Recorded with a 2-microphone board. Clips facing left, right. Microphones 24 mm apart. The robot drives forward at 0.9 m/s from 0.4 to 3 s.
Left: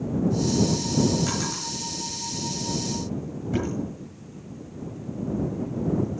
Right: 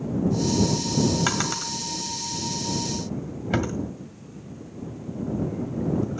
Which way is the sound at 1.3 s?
60° right (ahead or behind).